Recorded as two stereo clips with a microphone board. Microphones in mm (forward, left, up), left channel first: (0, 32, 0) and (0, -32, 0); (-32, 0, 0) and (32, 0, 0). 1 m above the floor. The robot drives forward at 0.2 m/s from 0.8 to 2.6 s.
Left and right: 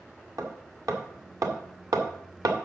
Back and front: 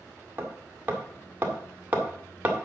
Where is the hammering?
60° right, 2 m; by 2.7 s 70° right, 1.9 m.